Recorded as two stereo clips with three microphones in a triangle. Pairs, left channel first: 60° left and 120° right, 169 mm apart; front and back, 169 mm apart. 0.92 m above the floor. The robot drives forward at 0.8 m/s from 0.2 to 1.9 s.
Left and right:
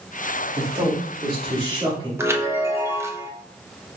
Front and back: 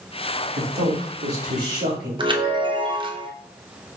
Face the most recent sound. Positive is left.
turn(degrees=-175)